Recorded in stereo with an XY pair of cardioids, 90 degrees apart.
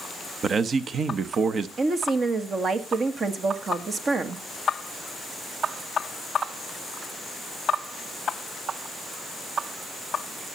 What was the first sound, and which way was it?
A man speaking, 55° right.